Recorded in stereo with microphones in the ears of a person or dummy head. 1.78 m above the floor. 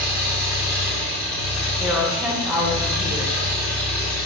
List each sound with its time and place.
0.0 s an engine running: 10° left (ahead or behind), 1.3 m
1.8 s a woman speaking: 5° right (ahead or behind), 0.8 m